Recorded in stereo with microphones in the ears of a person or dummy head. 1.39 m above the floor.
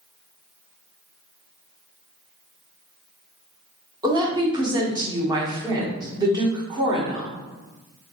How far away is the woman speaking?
About 0.9 m.